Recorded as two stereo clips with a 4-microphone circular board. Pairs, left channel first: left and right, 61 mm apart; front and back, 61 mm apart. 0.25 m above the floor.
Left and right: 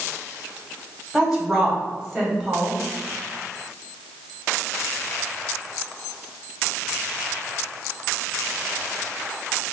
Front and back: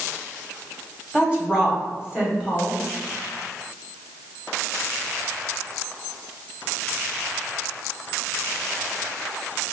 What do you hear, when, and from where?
1.1 s a woman speaking: 155° right, 1.4 m